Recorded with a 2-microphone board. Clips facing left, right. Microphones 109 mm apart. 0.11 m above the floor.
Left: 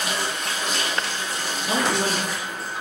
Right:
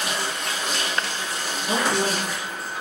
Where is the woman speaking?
20° left (ahead or behind), 1.2 m.